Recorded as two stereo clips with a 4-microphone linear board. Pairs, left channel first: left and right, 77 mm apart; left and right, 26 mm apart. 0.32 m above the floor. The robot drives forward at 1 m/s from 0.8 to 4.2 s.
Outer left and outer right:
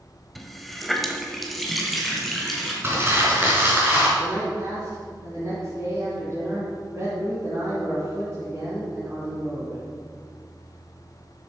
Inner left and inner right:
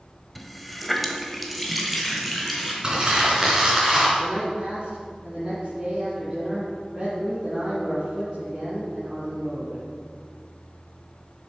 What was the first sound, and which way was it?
A running tap, centre (ahead or behind).